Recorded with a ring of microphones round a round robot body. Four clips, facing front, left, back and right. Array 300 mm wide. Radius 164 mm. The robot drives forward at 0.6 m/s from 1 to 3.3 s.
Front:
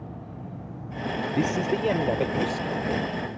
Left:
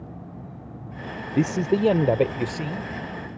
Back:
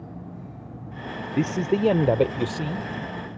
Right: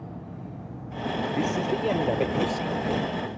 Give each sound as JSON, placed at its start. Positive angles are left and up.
{"t": 1.4, "sound": "a man speaking", "azimuth_deg": 105}